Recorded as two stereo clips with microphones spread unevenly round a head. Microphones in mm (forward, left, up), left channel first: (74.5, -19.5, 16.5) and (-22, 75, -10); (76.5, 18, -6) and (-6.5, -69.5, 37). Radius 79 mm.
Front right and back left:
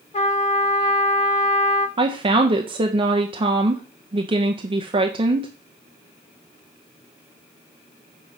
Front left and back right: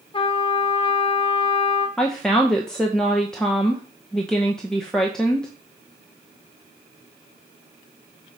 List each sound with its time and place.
0.1 s a trumpet: straight ahead, 1.0 m
2.0 s a woman speaking: 115° left, 0.6 m